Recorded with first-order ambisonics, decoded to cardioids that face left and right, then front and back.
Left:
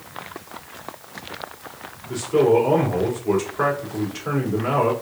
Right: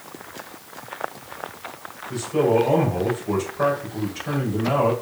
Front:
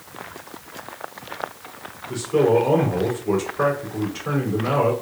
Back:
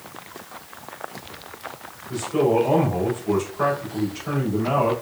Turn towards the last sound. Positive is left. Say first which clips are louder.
# left 3 dB, front 2 dB
turn(degrees=70)